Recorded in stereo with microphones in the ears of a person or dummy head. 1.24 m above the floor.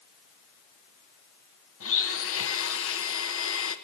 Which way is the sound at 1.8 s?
70° left (ahead or behind).